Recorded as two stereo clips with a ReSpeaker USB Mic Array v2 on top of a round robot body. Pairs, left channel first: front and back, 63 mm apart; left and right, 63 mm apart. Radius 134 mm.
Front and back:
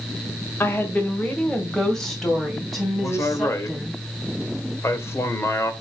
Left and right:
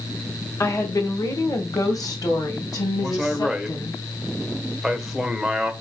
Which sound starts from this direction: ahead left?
A woman speaking, at 0.6 s.